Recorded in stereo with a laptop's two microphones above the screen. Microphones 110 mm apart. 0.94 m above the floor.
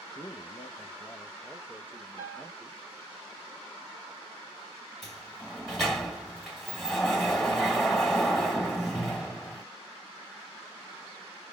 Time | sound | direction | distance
0.1 | a man speaking | 40° left (ahead or behind) | 0.6 m
2.2 | a piano | 35° right (ahead or behind) | 1.5 m
5.0 | a sliding door | centre (ahead or behind) | 1.8 m